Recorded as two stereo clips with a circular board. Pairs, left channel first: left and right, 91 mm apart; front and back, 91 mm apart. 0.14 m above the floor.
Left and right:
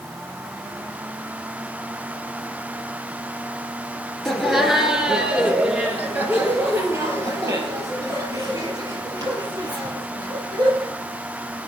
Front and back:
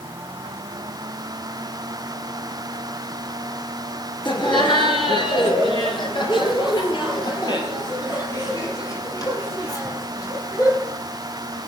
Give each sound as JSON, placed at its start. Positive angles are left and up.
{"t": 4.2, "sound": "laughter", "azimuth_deg": 5, "distance_m": 3.0}